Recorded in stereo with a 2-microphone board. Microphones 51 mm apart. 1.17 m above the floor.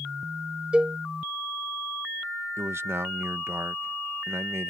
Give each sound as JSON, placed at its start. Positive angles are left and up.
{"t": 0.7, "sound": "a cowbell", "side_deg": -20}
{"t": 2.6, "sound": "a man speaking", "side_deg": -55}